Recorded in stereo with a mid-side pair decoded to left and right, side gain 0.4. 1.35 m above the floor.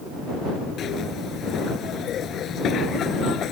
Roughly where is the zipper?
Left.